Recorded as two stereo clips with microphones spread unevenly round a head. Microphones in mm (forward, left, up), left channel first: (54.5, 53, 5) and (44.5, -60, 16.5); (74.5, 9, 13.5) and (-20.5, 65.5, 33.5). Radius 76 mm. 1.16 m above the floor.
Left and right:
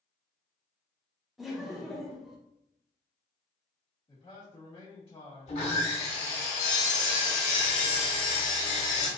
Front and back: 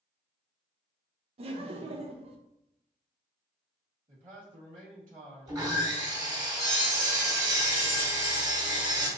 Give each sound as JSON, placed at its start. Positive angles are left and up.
{"t": 1.4, "sound": "laughter", "azimuth_deg": 170, "distance_m": 0.6}
{"t": 4.1, "sound": "a man speaking", "azimuth_deg": 145, "distance_m": 1.5}
{"t": 5.5, "sound": "sawing", "azimuth_deg": 90, "distance_m": 1.7}